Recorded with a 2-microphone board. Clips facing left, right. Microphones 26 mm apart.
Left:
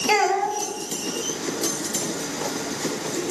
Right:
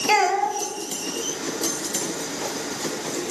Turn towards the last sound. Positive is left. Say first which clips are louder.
# right 1 dB
turn(degrees=-10)  # may be behind; listen again after turning